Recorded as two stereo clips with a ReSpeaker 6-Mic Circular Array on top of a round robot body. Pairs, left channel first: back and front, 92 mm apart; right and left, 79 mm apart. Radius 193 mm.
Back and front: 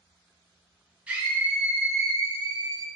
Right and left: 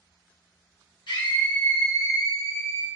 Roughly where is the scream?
Right.